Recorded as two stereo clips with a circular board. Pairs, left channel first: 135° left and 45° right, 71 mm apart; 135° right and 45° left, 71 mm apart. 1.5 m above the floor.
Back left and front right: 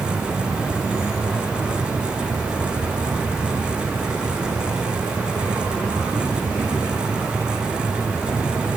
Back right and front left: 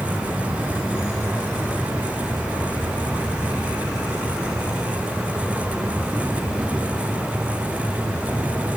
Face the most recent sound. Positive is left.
turn(degrees=-30)